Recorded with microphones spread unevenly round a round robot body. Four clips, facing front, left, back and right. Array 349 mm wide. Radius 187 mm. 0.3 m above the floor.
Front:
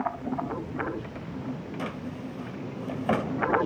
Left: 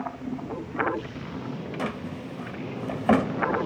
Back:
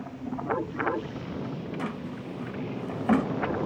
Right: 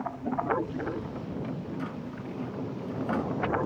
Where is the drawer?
85° left, 1.2 m.